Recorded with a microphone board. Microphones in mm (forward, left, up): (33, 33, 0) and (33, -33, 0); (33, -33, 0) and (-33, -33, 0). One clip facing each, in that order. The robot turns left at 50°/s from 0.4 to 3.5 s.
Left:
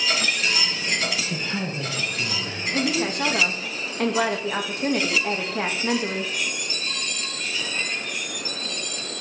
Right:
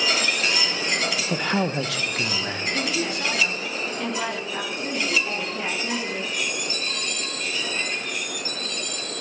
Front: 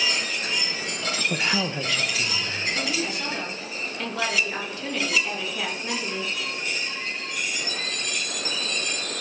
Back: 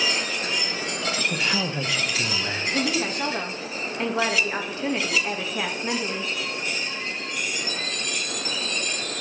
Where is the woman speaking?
155° left, 2.5 m; by 6.3 s 115° left, 2.5 m.